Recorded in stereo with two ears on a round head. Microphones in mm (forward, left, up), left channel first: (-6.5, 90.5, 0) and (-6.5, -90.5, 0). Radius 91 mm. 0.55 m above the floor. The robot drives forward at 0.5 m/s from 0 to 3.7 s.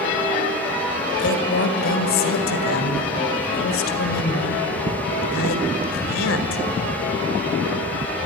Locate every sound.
1.2 s a woman speaking: 60° left (ahead or behind), 2.5 m; by 6.6 s 70° left (ahead or behind), 2 m